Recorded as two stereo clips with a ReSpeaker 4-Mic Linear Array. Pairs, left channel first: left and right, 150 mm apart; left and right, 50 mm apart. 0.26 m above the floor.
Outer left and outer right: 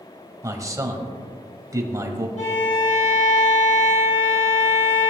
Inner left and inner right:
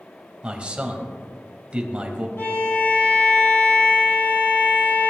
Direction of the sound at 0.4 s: 20° right (ahead or behind).